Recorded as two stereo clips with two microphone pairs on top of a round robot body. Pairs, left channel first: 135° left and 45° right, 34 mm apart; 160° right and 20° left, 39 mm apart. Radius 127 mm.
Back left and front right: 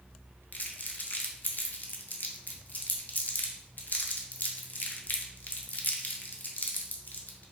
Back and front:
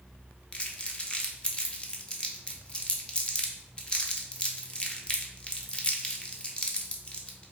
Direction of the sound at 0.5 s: 135° left.